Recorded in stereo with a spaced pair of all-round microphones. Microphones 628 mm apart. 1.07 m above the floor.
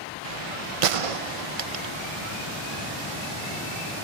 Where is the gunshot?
60° right (ahead or behind).